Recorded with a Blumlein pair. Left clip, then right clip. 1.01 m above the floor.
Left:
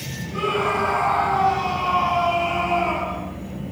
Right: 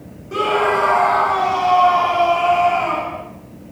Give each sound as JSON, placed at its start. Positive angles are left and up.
{"t": 0.3, "sound": "a scream", "azimuth_deg": -60, "distance_m": 2.5}